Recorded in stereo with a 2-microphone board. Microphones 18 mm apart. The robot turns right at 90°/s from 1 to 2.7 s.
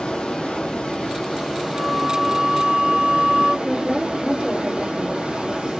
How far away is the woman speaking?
About 2.5 m.